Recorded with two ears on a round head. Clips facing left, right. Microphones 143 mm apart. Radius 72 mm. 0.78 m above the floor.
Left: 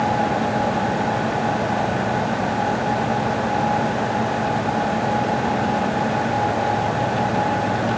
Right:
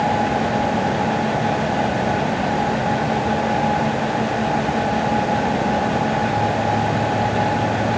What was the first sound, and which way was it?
Only background noise.